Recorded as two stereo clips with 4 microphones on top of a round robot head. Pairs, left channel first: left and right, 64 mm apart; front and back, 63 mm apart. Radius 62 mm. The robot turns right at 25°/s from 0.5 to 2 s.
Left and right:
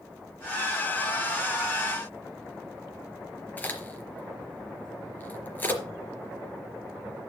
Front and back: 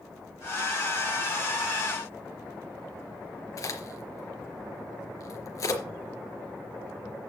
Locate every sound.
3.6 s a crack: 30° left, 4 m